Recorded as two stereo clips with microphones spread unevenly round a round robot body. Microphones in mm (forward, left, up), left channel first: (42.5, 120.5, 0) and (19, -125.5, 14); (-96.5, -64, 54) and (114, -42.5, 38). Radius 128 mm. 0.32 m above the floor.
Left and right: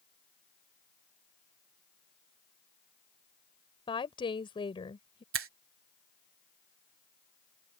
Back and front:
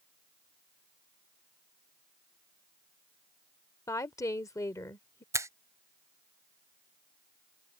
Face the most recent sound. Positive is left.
turn(degrees=-65)